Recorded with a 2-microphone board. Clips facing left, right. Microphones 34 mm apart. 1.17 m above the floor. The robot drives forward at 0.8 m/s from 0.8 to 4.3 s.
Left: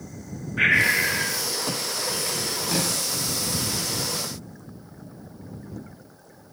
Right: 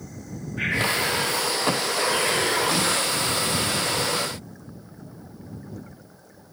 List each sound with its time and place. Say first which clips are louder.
0.6 s breathing: left 5 dB; 35° left (ahead or behind), 0.9 m; by 1.5 s 20° left (ahead or behind), 1.3 m
2.7 s a snare drum: right 3 dB; 5° right (ahead or behind), 9 m